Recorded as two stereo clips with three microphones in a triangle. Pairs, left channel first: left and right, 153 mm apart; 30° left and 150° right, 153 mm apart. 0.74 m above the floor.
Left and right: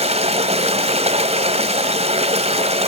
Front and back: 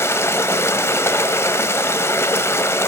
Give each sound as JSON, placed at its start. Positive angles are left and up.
{"t": 0.0, "sound": "running water", "azimuth_deg": -45, "distance_m": 1.8}